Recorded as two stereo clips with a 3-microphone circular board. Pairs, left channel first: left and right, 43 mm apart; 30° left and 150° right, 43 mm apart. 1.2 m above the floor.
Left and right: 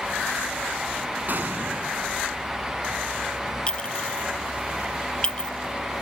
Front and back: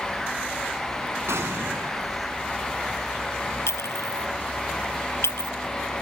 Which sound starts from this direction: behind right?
An explosion, at 1.3 s.